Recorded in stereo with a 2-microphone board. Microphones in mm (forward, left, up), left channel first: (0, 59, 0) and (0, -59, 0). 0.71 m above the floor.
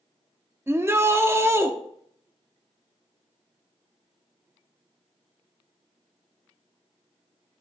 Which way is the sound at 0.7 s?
20° right (ahead or behind).